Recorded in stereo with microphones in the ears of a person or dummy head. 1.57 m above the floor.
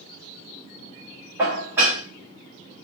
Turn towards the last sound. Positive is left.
turn(degrees=-15)  # may be behind; listen again after turning